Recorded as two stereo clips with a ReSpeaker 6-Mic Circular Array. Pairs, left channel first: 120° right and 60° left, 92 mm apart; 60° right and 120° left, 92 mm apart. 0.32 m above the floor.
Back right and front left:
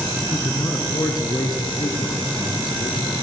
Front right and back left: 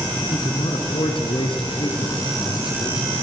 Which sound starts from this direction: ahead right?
A man speaking, at 0.3 s.